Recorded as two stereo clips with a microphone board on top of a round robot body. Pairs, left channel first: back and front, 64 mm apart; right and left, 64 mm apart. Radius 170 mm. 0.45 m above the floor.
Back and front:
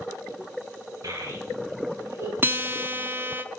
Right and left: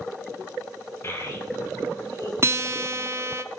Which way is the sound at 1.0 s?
40° right.